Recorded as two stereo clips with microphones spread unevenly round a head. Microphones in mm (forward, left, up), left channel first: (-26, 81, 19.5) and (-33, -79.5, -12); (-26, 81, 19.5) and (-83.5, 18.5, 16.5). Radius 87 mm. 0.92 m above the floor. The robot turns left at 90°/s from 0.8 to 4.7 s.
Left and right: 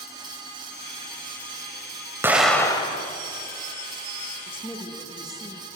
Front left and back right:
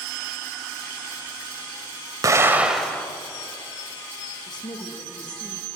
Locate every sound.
2.2 s an explosion: 175° right, 1.1 m; by 3.0 s 115° left, 1.1 m
4.5 s a woman speaking: 30° left, 1.2 m; by 5.7 s 10° left, 1.2 m